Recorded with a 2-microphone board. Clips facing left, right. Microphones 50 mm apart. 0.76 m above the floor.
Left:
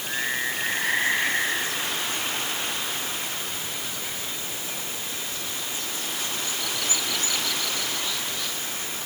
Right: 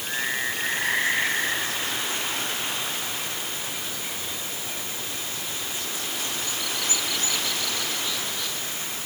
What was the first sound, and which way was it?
Only background noise.